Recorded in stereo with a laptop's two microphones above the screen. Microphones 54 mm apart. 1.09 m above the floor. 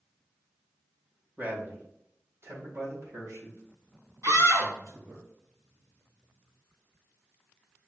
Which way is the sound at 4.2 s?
65° right (ahead or behind).